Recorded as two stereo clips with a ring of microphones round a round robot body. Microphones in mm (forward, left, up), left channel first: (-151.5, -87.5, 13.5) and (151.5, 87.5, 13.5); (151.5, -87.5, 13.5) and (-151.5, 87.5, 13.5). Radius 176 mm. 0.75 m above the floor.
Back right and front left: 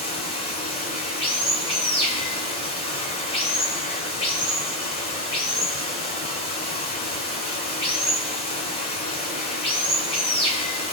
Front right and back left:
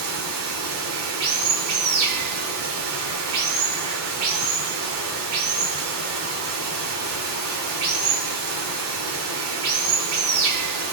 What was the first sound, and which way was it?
Running water, 135° left.